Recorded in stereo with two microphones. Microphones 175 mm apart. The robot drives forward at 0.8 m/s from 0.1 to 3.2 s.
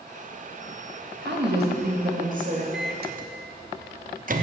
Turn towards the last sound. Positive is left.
turn(degrees=-50)  # may be behind; listen again after turning